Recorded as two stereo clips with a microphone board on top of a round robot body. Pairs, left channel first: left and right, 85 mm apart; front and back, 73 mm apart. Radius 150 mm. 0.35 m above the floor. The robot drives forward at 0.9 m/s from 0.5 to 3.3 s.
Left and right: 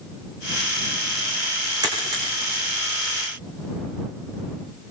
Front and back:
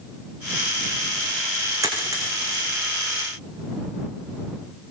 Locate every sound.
1.8 s a dropped coin: 135° right, 8 m; by 2.6 s 140° right, 8.5 m